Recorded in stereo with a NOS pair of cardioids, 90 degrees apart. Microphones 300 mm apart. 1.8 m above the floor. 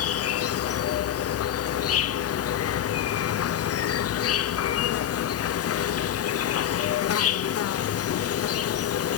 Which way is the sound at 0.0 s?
50° left.